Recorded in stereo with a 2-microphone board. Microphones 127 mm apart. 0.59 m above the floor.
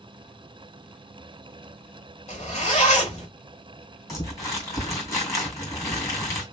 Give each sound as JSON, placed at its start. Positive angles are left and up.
{"t": 2.3, "sound": "a zipper", "side_deg": 60, "distance_m": 1.6}
{"t": 4.1, "sound": "crumpling", "side_deg": 25, "distance_m": 2.0}